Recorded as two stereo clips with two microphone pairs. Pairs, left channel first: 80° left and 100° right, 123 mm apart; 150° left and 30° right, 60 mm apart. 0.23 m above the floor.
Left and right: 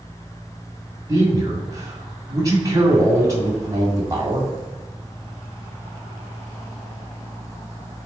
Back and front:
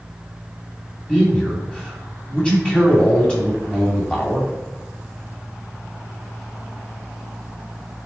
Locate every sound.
1.1 s a man speaking: 145° right, 1.7 m